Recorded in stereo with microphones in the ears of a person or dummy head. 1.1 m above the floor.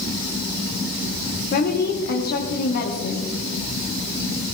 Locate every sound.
1.5 s a woman speaking: 50° left (ahead or behind), 2 m